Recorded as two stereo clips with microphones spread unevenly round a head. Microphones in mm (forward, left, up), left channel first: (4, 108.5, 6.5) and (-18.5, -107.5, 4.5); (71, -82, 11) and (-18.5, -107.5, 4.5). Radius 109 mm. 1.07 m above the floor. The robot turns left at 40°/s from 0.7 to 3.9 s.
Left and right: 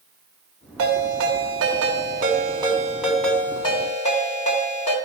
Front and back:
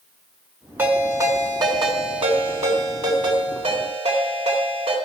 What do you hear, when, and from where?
0.8 s a ringtone: 95° right, 3 m; by 5.0 s 140° left, 3 m